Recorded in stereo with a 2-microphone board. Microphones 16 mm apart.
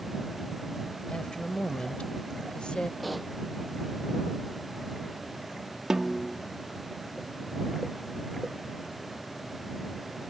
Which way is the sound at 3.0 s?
5° left (ahead or behind).